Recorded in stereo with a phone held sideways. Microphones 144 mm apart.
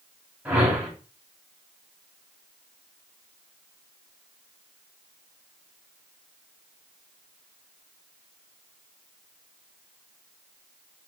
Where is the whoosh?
10° right (ahead or behind), 2.5 m.